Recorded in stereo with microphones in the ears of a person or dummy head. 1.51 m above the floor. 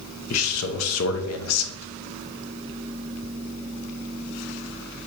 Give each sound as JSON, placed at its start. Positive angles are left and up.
{"t": 0.3, "sound": "a man speaking", "side_deg": 90, "distance_m": 1.1}